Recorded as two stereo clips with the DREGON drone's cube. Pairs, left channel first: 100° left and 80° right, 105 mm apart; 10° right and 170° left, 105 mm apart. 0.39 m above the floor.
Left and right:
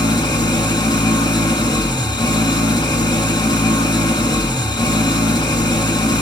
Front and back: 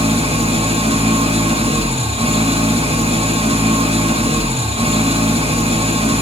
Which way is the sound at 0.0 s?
145° left.